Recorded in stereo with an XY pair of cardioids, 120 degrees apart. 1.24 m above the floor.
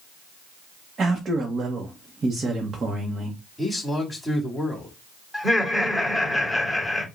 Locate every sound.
1.0 s a man speaking: 35° right, 0.9 m
3.6 s a man speaking: 5° right, 2.5 m
5.3 s laughter: 5° left, 2.5 m